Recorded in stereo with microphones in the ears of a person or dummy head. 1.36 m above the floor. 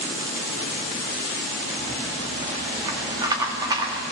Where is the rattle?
25° right (ahead or behind), 1.9 m.